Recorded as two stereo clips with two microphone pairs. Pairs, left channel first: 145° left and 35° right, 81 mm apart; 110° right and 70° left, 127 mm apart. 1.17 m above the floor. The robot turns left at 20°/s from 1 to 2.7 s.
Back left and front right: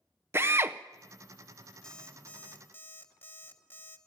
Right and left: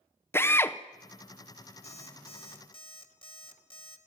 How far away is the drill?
About 0.7 m.